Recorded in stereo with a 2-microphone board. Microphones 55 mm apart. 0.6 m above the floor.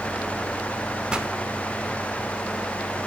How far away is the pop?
About 1.0 m.